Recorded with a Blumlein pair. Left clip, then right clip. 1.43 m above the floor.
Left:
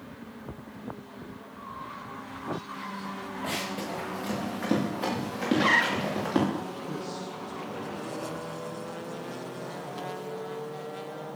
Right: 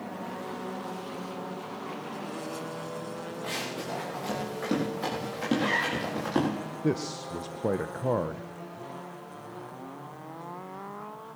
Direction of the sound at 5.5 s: 25° left.